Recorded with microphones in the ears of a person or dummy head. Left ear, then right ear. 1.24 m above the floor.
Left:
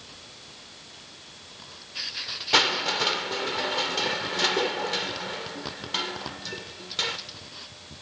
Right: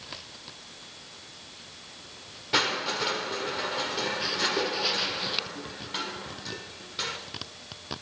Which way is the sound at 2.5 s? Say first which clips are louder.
Left 4 dB; 20° left (ahead or behind).